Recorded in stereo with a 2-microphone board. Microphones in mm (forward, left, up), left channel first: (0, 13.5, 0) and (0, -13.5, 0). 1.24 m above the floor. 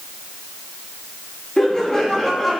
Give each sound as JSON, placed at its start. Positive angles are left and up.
{"t": 1.6, "sound": "laughter", "side_deg": 40, "distance_m": 2.5}